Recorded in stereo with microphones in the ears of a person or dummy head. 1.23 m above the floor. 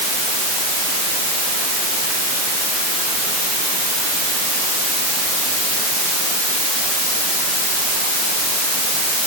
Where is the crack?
No crack in this recording.